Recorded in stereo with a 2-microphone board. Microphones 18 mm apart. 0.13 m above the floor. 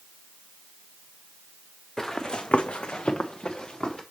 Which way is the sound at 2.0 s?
25° left (ahead or behind).